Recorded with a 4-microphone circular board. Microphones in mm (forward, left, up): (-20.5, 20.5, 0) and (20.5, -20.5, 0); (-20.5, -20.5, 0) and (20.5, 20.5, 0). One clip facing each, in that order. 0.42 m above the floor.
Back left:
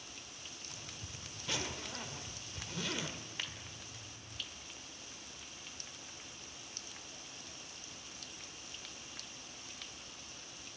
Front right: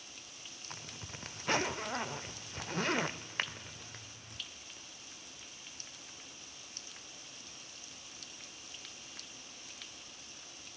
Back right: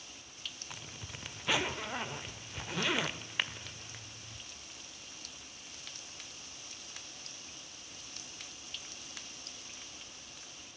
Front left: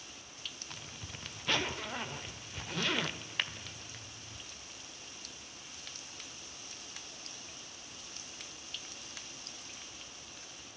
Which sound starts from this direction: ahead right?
A zipper, at 0.7 s.